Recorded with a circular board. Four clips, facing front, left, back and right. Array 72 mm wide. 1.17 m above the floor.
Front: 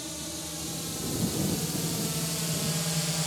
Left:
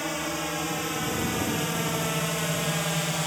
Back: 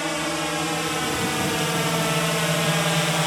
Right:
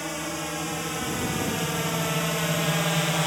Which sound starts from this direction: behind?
A drone, at 0.0 s.